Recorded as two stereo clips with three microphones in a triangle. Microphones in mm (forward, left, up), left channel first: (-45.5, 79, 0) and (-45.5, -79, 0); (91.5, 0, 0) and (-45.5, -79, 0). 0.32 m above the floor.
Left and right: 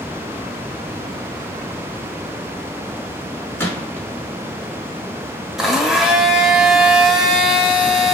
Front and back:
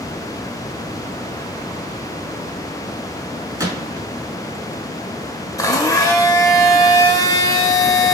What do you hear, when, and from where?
3.6 s a gunshot: 160° left, 1.4 m
5.6 s a blender: 5° right, 0.7 m